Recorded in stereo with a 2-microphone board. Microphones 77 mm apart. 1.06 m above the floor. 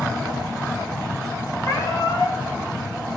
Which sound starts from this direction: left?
A cat meowing, at 1.6 s.